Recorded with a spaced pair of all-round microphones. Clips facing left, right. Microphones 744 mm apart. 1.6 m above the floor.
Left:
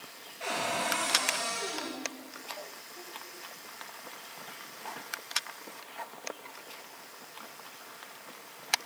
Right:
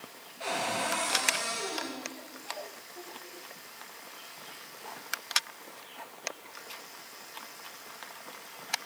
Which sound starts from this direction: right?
A cupboard door, at 0.4 s.